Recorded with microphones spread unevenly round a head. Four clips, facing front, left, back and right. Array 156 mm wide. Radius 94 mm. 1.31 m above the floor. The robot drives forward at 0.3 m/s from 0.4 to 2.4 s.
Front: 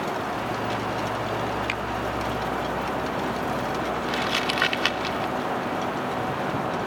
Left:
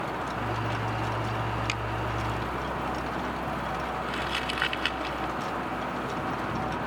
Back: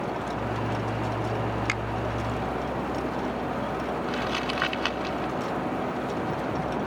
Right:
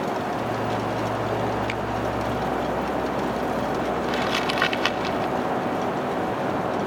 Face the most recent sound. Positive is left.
turn(degrees=-85)